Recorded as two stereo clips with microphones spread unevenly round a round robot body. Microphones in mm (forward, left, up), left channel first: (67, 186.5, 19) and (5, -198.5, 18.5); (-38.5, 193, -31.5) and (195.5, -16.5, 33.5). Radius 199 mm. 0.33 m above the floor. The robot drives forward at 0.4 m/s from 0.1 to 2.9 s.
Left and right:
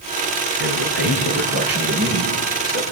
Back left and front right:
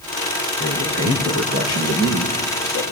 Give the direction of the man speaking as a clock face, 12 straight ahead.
5 o'clock.